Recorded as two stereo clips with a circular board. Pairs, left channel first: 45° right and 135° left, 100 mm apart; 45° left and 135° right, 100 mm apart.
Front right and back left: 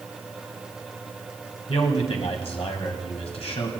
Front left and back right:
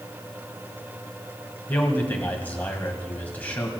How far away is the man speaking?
About 1.9 m.